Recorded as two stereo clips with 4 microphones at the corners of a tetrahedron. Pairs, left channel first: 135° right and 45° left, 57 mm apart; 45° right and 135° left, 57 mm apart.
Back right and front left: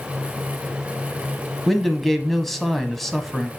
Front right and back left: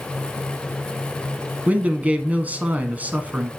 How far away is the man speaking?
About 1.1 m.